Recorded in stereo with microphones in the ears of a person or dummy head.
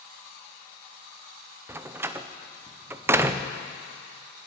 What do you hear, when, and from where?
1.7 s a door slam: 15° right (ahead or behind), 0.6 m